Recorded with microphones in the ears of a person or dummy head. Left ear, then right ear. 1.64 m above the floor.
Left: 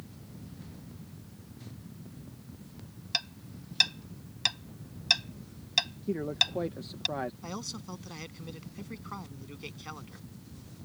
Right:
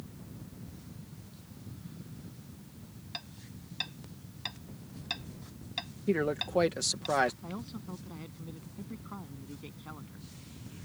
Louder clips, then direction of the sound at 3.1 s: Left 11 dB; 55° left (ahead or behind).